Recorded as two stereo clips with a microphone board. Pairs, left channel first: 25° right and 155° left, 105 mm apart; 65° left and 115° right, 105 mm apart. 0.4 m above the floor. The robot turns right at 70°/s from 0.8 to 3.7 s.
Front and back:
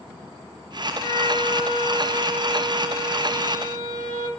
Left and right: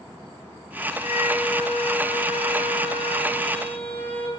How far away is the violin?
About 1.7 m.